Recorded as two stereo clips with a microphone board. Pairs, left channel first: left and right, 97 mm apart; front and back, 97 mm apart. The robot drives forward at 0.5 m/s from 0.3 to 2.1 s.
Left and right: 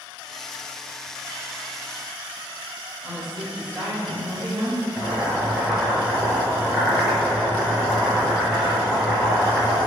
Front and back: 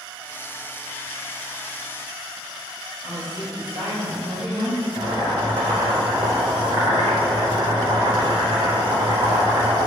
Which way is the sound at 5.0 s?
170° right.